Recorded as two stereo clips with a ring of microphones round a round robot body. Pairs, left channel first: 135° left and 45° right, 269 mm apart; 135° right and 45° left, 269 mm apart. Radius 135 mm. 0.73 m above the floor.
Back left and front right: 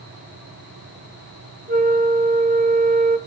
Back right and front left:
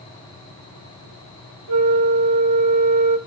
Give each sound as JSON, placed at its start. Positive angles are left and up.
{"t": 1.7, "sound": "a flute", "azimuth_deg": 15, "distance_m": 1.0}